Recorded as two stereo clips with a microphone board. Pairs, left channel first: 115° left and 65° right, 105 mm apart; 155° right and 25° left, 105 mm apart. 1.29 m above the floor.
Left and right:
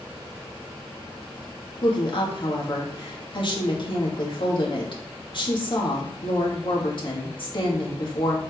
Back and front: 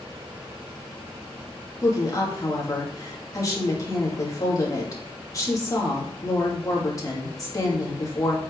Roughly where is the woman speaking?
Behind left.